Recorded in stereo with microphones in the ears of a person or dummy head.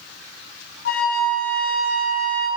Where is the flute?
65° left (ahead or behind), 1.3 m.